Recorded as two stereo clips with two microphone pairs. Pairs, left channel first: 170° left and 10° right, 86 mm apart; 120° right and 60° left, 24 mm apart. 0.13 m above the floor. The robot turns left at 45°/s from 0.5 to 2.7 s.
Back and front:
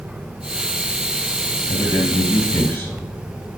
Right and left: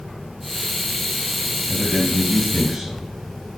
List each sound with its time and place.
1.7 s a man speaking: 155° left, 2.5 m; by 3.1 s 110° left, 2.5 m